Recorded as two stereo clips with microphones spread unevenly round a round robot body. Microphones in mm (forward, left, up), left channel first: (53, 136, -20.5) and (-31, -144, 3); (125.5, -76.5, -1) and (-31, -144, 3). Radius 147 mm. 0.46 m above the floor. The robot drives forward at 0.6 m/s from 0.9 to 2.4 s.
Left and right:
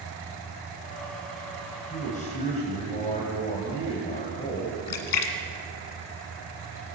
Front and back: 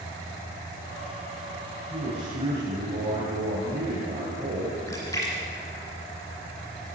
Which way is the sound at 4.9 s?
100° left.